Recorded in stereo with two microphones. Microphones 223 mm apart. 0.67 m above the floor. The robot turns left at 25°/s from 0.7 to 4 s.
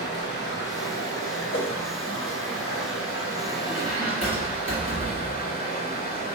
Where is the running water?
130° left, 1.3 m; by 6.3 s 45° left, 1.3 m.